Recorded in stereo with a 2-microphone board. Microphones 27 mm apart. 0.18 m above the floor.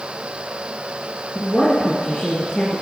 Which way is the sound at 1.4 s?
35° left (ahead or behind).